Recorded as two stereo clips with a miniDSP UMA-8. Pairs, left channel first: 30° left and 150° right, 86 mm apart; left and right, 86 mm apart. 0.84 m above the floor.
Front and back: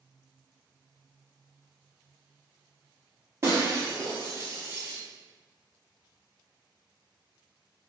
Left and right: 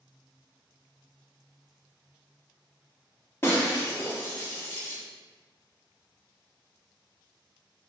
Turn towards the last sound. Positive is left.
turn(degrees=155)